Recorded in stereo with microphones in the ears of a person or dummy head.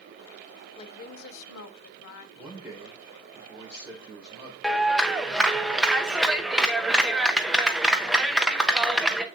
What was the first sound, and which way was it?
A woman speaking, 25° left (ahead or behind).